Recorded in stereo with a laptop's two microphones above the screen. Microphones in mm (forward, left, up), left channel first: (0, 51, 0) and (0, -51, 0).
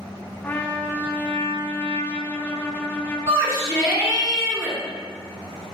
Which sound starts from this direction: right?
A shout, at 3.3 s.